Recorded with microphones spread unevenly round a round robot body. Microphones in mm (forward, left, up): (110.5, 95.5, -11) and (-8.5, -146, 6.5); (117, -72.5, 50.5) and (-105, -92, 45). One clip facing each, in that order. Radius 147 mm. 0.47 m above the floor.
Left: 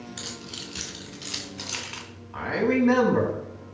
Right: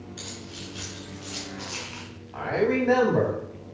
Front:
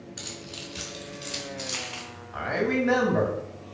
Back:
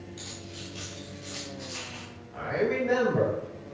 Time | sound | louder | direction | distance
0.2 | keys jangling | even, front 2 dB | 45° left | 3.5 m
2.3 | a man speaking | even, front 1 dB | straight ahead | 4 m